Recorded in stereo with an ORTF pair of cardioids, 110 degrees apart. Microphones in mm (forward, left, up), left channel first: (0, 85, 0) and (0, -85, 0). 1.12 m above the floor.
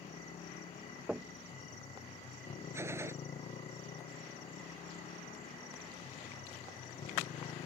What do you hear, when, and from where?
0.0 s a motorcycle: 40° left
1.1 s knocking: 5° right
2.7 s a gunshot: 15° right